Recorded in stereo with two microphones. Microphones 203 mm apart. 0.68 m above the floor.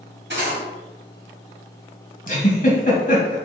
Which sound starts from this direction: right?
Cutlery clinking, at 0.3 s.